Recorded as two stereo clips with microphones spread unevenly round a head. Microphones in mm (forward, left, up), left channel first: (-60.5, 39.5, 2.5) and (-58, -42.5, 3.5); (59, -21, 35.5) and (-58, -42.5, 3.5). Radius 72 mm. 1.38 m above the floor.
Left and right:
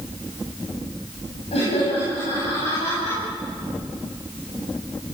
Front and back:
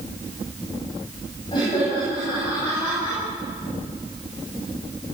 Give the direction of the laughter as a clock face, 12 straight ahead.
10 o'clock.